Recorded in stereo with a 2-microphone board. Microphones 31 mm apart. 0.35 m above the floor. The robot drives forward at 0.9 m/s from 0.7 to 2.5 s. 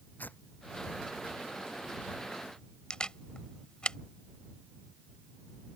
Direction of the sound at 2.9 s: 25° left (ahead or behind).